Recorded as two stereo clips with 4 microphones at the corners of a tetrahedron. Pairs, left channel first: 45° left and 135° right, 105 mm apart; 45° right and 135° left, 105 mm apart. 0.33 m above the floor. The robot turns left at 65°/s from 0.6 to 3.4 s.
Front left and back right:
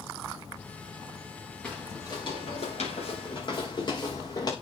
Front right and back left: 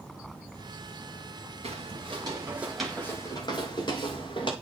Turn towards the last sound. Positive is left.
turn(degrees=-5)